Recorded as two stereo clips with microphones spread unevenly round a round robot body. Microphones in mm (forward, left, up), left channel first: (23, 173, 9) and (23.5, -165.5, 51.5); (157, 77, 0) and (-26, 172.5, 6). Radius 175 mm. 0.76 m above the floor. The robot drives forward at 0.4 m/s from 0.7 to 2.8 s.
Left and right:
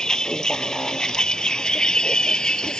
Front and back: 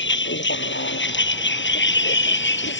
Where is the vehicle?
Straight ahead.